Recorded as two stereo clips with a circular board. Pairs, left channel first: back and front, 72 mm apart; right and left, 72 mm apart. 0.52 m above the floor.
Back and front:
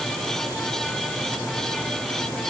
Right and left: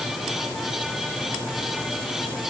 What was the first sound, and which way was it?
Only background noise.